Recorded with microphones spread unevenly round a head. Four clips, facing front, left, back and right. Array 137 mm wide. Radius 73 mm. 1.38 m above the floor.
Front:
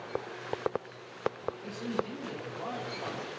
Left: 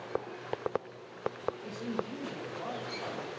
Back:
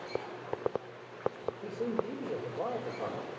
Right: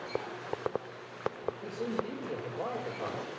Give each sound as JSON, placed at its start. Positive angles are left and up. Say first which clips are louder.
{"t": 1.6, "sound": "a man speaking", "louder": "right 2 dB, back 2 dB", "azimuth_deg": -150, "distance_m": 5.0}